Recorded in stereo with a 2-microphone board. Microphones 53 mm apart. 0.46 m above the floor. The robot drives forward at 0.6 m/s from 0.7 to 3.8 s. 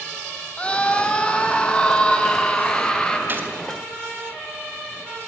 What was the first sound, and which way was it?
A scream, 20° left (ahead or behind).